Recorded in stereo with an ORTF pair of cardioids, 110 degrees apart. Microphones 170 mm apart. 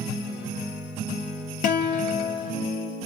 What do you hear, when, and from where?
1.6 s a guitar: 60° left, 0.6 m